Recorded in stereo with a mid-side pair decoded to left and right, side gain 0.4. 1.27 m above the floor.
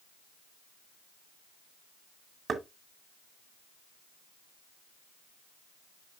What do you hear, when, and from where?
2.5 s knocking: 55° right, 2 m